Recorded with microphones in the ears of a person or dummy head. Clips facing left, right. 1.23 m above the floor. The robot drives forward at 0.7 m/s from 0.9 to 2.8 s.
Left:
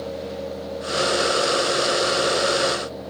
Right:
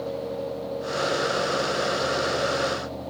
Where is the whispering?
No whispering in this recording.